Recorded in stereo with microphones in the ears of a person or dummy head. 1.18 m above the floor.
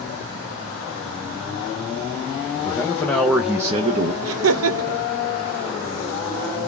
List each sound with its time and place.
2.6 s a man speaking: 35° left (ahead or behind), 0.8 m; by 4.1 s 40° right (ahead or behind), 0.5 m
4.2 s laughter: 65° right (ahead or behind), 0.8 m